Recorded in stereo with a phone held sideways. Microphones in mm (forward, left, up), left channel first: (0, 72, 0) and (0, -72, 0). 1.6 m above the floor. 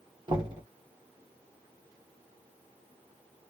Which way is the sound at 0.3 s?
35° right (ahead or behind).